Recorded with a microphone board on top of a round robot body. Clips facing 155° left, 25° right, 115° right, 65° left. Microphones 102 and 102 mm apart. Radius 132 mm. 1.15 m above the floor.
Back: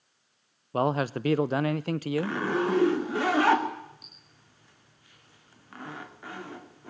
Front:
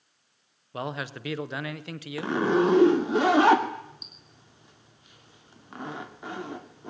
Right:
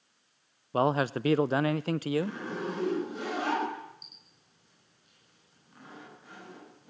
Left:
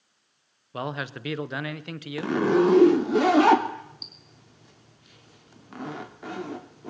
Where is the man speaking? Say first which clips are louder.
Back 8 dB, right 6 dB; 160° right, 0.8 m.